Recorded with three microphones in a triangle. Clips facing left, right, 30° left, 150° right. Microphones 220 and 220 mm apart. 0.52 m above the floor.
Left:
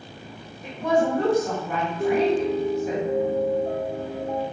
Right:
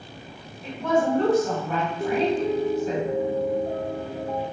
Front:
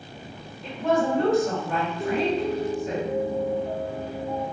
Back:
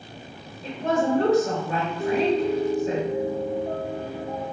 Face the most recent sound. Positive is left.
turn(degrees=145)